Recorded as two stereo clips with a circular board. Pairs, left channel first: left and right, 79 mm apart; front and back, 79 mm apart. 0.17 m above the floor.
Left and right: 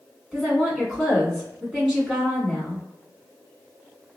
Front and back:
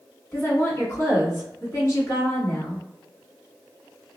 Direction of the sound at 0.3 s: 10° right.